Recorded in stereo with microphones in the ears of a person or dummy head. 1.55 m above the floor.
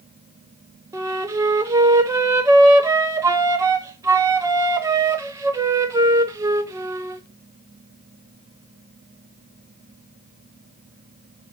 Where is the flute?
15° right (ahead or behind), 0.5 m.